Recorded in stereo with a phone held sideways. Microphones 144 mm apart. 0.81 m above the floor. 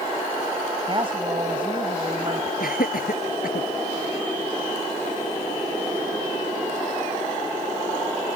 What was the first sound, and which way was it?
A woman speaking, 35° right (ahead or behind).